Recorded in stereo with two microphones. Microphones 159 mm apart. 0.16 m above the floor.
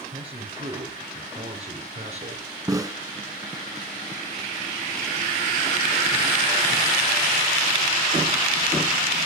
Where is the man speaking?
40° right (ahead or behind), 7 m; by 2.4 s 50° right (ahead or behind), 5.5 m.